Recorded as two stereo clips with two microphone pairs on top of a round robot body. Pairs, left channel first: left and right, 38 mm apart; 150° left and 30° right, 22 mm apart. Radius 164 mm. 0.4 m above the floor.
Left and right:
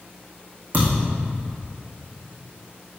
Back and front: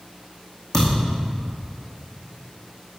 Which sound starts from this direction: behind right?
A thud, at 0.7 s.